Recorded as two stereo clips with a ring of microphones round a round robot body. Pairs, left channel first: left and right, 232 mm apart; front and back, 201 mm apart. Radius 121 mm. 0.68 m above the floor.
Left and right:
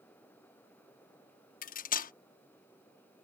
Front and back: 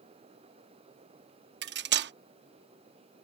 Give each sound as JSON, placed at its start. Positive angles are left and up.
{"t": 1.6, "sound": "cutlery clinking", "azimuth_deg": 145}